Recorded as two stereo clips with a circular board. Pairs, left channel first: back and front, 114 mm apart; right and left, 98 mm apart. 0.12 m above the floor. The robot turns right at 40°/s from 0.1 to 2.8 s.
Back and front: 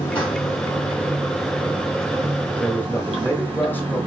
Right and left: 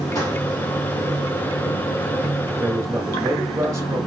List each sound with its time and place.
0.0 s running water: 140° right, 2.5 m; by 4.1 s 35° right, 2.5 m
2.6 s a man speaking: 110° left, 1.3 m; by 4.0 s 120° left, 1.3 m